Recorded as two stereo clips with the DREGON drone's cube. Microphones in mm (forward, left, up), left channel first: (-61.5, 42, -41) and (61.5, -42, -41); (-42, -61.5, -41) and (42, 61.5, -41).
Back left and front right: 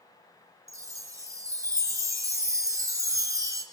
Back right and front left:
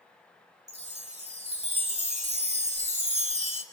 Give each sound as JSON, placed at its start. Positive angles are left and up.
{"t": 0.7, "sound": "a chime", "azimuth_deg": 30, "distance_m": 1.5}